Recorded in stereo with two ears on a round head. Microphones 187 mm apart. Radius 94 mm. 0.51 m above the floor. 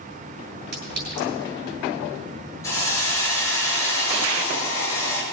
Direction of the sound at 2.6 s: 15° left (ahead or behind).